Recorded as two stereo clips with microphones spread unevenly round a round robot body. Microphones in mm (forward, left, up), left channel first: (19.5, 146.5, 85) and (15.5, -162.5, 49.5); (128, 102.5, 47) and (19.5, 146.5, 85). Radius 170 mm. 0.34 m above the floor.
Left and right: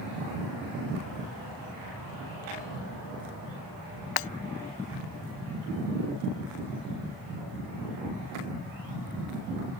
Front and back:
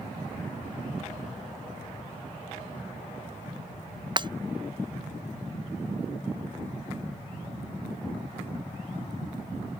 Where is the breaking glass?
110° left.